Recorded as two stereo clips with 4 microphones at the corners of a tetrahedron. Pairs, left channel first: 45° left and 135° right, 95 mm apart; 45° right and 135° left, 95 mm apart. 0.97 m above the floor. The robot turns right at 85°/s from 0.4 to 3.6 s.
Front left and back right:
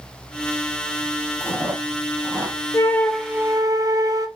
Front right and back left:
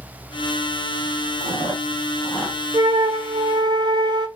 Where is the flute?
100° left, 0.5 m; by 4.3 s 170° left, 0.5 m.